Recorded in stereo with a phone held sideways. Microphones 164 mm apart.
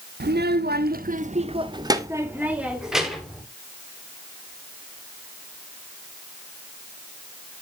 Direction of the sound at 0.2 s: 80° right.